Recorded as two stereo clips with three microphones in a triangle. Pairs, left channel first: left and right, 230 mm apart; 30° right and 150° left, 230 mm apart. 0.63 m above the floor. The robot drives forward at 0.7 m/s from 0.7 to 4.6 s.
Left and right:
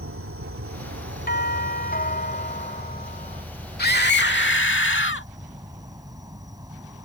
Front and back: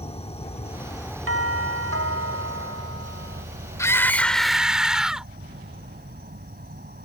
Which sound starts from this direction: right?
An insect, at 0.0 s.